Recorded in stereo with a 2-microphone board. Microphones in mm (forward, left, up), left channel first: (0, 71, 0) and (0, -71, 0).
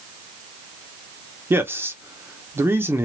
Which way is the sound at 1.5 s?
15° right (ahead or behind).